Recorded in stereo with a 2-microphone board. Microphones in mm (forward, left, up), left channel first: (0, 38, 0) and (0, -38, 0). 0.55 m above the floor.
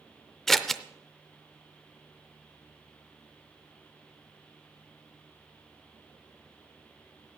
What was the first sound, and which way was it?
Scissors, 5° left (ahead or behind).